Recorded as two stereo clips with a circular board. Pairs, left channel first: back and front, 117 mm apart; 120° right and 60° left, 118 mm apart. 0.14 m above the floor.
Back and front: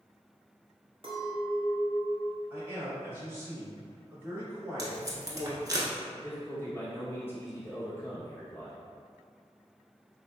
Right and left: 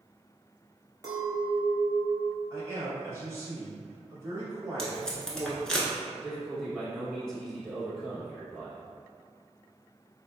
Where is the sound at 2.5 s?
40° left, 1.1 m.